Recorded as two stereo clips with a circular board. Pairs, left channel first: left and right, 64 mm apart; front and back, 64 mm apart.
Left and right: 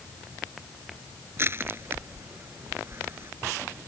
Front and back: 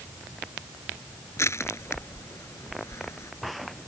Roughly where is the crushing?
Ahead right.